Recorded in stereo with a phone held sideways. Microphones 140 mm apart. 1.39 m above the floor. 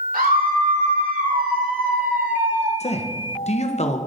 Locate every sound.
0.1 s a scream: 85° right, 3 m; by 2.7 s 65° right (ahead or behind), 1.6 m
2.8 s a man speaking: 50° left (ahead or behind), 1.0 m